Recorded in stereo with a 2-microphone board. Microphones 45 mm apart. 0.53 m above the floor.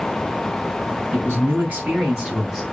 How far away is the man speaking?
About 3 m.